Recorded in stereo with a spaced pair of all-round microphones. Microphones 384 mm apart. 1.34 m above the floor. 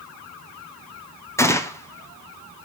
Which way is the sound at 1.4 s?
10° left (ahead or behind).